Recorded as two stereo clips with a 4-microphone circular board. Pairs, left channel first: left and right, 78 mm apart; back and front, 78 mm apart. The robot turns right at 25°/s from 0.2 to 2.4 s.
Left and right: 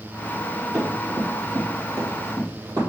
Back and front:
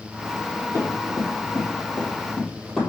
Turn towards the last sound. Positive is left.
turn(degrees=-100)